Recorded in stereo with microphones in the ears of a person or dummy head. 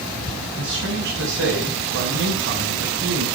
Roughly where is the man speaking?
Right.